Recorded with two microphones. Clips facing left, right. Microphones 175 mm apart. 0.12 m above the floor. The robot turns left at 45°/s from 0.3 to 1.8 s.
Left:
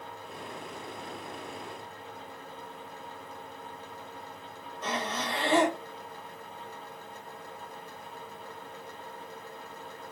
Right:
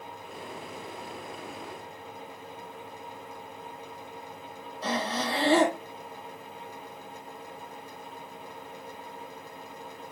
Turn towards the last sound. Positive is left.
turn(degrees=-35)  # may be behind; listen again after turning